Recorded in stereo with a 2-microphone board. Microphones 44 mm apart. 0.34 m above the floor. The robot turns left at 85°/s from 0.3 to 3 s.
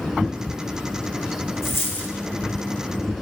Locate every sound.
1.6 s a dropped coin: 80° left, 2.0 m; by 2.1 s 35° left, 2.0 m